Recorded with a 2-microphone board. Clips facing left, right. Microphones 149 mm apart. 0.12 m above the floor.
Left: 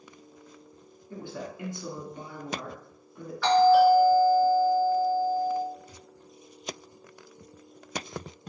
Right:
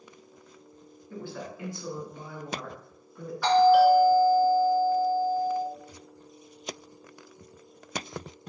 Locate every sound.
1.1 s a woman speaking: 20° left (ahead or behind), 1.2 m
3.4 s a doorbell: 15° right (ahead or behind), 1.7 m